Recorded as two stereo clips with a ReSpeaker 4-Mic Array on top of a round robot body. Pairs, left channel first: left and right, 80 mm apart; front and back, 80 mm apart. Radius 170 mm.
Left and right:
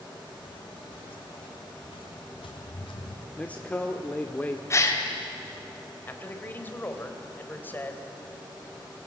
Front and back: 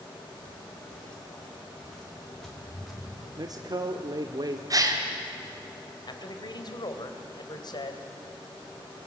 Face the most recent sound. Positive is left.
turn(degrees=25)